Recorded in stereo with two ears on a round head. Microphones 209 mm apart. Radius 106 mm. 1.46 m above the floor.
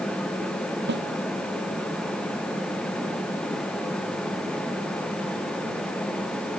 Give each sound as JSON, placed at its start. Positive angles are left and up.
{"t": 0.9, "sound": "a snare drum", "side_deg": -50}